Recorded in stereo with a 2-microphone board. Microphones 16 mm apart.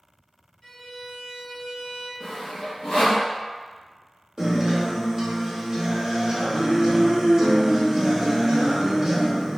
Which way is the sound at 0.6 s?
20° left (ahead or behind).